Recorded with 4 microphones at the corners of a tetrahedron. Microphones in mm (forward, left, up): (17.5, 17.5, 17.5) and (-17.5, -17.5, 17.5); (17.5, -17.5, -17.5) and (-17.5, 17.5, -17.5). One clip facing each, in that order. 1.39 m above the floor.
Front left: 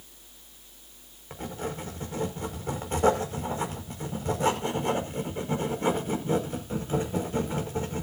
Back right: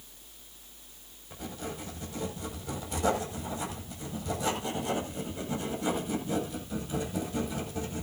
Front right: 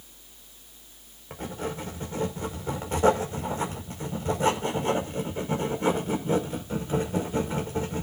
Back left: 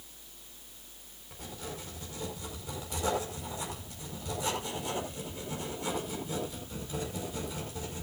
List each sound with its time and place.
1.3 s writing: straight ahead, 5.5 m